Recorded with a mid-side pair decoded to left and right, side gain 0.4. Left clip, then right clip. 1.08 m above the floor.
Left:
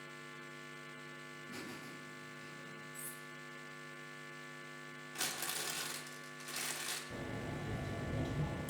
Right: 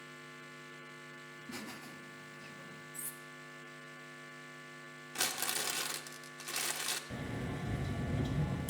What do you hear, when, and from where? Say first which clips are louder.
1.3 s laughter: right 3 dB; 65° right, 4 m
2.9 s cutlery clinking: right 1 dB; 55° right, 2 m
5.2 s crumpling: right 4 dB; 65° right, 1.5 m
7.1 s a sliding door: right 2 dB; 55° right, 2.5 m